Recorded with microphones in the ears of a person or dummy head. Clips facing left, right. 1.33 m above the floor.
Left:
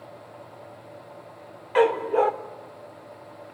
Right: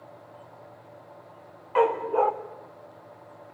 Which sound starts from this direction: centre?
A dog barking, at 1.8 s.